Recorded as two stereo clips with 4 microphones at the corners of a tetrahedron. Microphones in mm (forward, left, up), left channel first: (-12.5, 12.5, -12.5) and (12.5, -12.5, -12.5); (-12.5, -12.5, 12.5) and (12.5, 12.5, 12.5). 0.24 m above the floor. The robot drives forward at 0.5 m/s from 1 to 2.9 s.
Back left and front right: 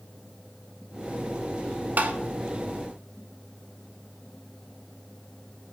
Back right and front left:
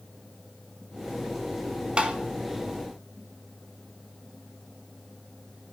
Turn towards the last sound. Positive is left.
turn(degrees=-40)